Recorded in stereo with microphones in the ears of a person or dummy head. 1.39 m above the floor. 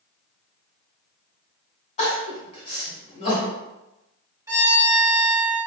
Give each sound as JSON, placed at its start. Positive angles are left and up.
{"t": 2.0, "sound": "crying", "side_deg": 30, "distance_m": 1.7}
{"t": 4.5, "sound": "a violin", "side_deg": -20, "distance_m": 1.1}